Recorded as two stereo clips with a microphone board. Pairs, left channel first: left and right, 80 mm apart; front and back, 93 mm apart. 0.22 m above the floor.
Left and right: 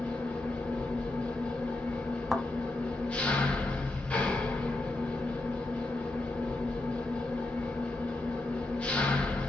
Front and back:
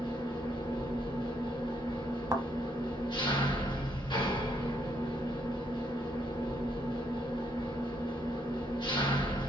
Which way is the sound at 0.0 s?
15° left.